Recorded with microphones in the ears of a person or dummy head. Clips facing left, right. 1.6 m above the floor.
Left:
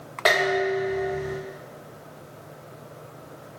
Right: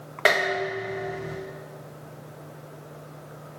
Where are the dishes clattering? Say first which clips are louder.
Left 3 dB; 35° right (ahead or behind), 1.5 m.